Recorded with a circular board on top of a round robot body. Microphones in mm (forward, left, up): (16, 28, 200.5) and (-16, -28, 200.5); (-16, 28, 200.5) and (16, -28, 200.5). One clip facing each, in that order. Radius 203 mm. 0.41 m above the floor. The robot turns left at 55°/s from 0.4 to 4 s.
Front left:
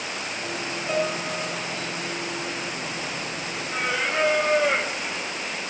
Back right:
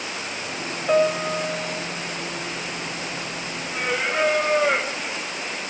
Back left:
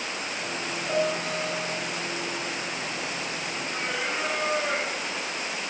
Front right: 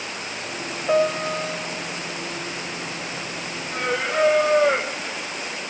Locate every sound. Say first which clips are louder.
0.9 s a piano: back right 7 dB, front right 7 dB; 65° right, 1.9 m; by 1.9 s 120° right, 1.9 m
3.7 s singing: back right 1 dB, front right 9 dB; 25° right, 0.9 m; by 5.6 s 40° right, 0.9 m